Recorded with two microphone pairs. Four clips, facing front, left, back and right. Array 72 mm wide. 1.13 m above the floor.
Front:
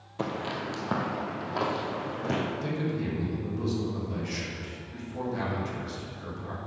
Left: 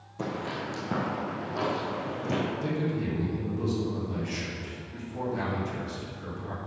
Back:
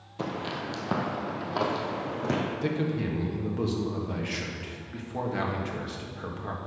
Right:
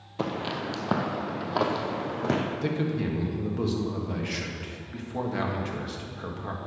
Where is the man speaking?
130° right, 1.8 m.